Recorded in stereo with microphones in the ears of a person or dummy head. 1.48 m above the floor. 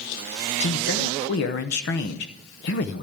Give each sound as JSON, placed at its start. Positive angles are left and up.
{"t": 0.6, "sound": "a man speaking", "side_deg": 55, "distance_m": 0.9}